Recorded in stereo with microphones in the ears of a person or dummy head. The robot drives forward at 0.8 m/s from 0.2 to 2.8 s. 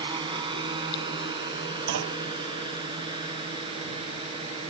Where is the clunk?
65° right (ahead or behind); by 2.2 s 55° right (ahead or behind).